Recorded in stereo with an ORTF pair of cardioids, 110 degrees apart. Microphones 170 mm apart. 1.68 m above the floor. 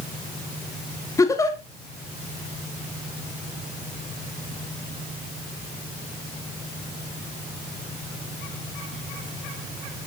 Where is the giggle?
20° left, 2.5 m.